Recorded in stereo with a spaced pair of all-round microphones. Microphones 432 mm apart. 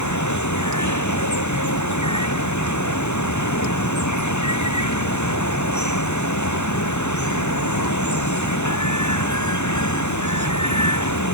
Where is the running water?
40° left (ahead or behind).